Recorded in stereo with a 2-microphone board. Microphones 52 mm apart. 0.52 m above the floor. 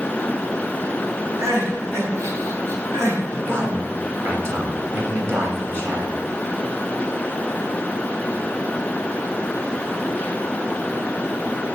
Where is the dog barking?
I don't hear a dog barking.